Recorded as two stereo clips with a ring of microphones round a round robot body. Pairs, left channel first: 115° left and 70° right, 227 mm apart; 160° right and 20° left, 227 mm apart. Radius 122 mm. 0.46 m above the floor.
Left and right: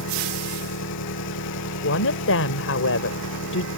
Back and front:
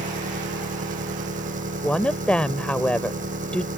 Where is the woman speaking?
120° left.